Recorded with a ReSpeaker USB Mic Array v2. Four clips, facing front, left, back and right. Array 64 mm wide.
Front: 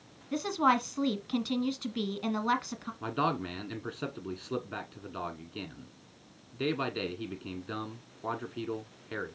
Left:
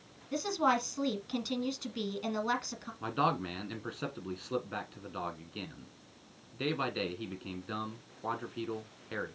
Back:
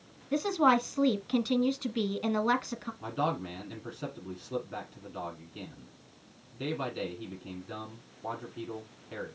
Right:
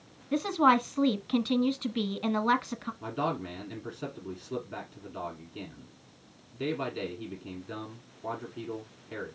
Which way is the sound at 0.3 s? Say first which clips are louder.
Right 6 dB, back 2 dB; 100° right.